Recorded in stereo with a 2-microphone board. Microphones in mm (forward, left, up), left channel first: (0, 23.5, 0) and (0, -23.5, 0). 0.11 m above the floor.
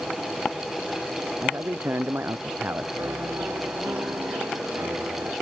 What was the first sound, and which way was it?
A man speaking, 50° right (ahead or behind).